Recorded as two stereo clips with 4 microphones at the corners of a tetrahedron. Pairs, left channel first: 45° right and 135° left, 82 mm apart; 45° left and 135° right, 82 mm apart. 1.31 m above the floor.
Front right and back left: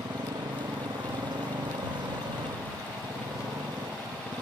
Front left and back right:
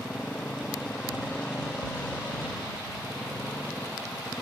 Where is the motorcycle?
120° left; by 4.4 s 115° left.